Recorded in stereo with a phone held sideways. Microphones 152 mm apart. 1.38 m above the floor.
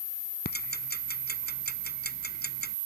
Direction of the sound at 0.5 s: 85° left.